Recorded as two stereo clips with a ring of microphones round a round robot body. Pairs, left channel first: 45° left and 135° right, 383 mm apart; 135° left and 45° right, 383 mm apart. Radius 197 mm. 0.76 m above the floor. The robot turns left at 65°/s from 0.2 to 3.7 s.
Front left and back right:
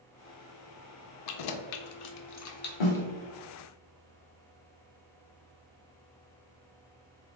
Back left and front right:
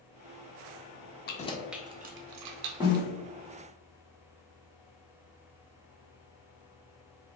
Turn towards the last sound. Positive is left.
turn(degrees=-25)